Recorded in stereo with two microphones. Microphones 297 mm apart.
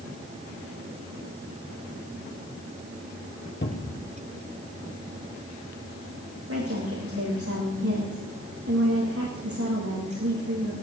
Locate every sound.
3.6 s a cupboard door: 40° left (ahead or behind), 1.9 m
6.5 s a woman speaking: 50° right (ahead or behind), 8 m